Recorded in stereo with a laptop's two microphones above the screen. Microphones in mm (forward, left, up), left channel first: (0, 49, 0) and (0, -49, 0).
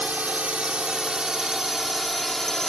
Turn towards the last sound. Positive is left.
turn(degrees=5)  # may be behind; listen again after turning